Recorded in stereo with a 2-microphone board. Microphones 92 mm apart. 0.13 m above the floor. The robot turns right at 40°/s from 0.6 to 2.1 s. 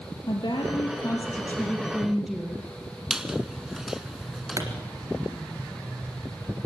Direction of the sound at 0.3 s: 125° left.